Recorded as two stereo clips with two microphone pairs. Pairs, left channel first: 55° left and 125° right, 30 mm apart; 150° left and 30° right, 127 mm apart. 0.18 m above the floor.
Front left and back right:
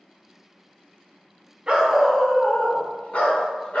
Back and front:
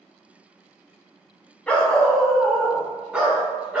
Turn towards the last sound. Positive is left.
turn(degrees=45)